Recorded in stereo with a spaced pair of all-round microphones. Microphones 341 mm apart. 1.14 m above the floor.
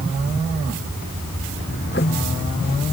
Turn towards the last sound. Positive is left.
turn(degrees=30)  # may be behind; listen again after turning